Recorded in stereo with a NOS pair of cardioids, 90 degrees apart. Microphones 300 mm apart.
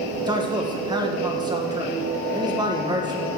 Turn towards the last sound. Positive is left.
turn(degrees=-15)